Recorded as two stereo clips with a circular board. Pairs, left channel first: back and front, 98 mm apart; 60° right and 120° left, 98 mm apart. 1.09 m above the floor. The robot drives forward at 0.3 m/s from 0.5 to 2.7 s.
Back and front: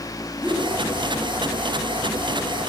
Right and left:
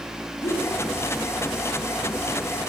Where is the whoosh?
75° right, 7.5 m.